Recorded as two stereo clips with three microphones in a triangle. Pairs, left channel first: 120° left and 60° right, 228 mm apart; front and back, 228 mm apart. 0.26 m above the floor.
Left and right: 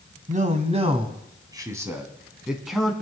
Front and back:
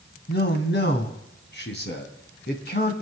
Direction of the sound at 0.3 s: 15° right.